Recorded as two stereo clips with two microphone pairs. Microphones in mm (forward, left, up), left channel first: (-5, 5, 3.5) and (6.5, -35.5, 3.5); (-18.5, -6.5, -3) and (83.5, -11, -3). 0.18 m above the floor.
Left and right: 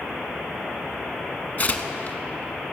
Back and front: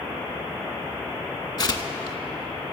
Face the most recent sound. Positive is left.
turn(degrees=140)